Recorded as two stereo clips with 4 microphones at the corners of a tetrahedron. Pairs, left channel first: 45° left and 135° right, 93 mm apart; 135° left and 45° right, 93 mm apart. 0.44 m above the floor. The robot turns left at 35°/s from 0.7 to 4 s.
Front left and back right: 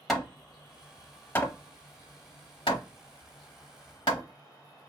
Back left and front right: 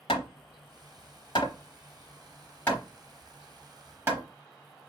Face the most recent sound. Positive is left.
turn(degrees=20)